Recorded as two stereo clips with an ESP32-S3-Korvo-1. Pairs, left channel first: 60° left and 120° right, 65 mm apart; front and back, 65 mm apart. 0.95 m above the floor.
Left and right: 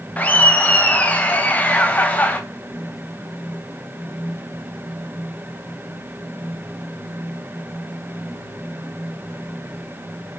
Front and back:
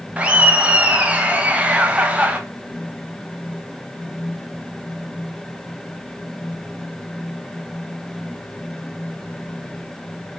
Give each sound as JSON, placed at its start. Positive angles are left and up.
{"t": 0.2, "sound": "laughter", "azimuth_deg": 115, "distance_m": 0.6}